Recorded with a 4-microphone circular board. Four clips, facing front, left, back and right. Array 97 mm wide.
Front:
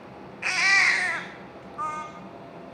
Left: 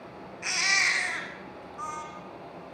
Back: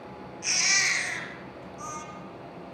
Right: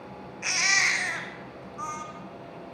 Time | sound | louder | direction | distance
0.4 | a baby crying | right 1 dB, front 7 dB | 5° right | 2 m